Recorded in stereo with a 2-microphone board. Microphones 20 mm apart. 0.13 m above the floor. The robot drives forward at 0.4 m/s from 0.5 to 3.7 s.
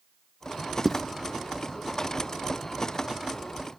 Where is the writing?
Centre (ahead or behind), 0.8 m.